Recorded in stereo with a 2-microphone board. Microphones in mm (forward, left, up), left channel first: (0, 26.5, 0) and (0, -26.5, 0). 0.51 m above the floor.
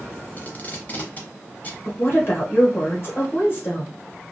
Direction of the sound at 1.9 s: 45° left (ahead or behind).